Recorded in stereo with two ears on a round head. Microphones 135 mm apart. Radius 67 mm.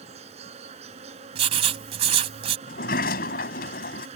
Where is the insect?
40° right (ahead or behind).